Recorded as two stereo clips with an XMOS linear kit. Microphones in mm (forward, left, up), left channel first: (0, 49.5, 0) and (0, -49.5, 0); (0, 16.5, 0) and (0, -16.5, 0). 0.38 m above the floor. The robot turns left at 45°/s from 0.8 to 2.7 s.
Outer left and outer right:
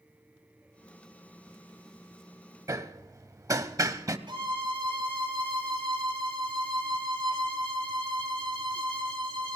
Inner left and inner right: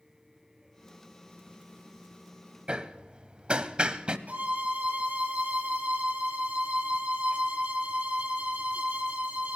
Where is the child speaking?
No child speaking in this recording.